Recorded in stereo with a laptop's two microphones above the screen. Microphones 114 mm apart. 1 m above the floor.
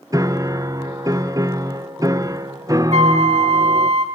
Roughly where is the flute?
Right.